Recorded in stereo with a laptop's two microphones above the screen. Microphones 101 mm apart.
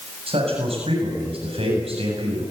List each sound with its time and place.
0.3 s a man speaking: 75° right (ahead or behind), 7.5 m